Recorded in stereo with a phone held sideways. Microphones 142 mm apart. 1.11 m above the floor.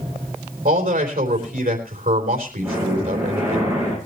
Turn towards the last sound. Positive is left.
turn(degrees=-20)  # may be behind; listen again after turning